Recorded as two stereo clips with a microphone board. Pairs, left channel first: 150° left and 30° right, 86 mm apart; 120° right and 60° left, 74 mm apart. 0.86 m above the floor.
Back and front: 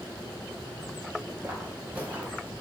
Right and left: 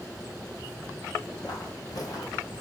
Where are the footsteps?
100° right, 2.5 m; by 2.5 s 105° right, 1.3 m.